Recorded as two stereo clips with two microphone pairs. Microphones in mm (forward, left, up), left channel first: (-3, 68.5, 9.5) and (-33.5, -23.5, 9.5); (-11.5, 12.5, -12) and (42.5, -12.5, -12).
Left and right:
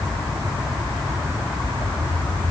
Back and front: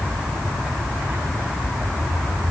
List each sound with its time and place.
Only background noise.